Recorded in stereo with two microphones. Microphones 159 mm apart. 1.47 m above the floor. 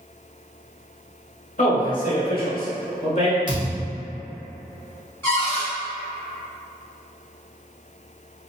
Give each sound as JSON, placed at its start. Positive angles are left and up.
{"t": 1.6, "sound": "a man speaking", "side_deg": 55, "distance_m": 1.1}
{"t": 3.5, "sound": "a thud", "side_deg": -30, "distance_m": 0.8}
{"t": 5.2, "sound": "a cupboard door", "side_deg": 15, "distance_m": 1.7}